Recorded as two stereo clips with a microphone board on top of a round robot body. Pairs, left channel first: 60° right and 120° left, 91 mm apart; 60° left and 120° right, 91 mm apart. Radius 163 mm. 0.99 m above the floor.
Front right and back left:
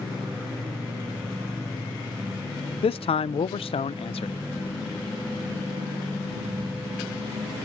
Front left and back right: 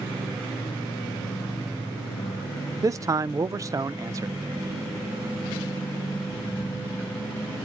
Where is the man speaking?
65° right, 0.5 m.